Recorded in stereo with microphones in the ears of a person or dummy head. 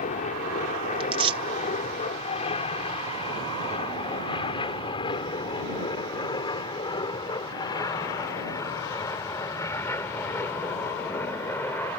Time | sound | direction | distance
0.0 | an aircraft | 40° left (ahead or behind) | ?
1.0 | tearing paper | 35° right (ahead or behind) | ?